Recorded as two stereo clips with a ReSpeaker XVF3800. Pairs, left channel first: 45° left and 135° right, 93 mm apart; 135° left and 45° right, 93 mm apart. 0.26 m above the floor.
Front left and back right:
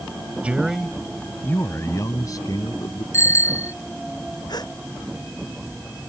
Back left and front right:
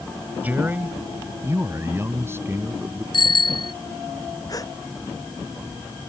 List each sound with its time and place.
0.4 s a man speaking: 85° right; by 3.0 s 15° left
3.1 s a bicycle bell: 105° left
4.5 s a gasp: 85° left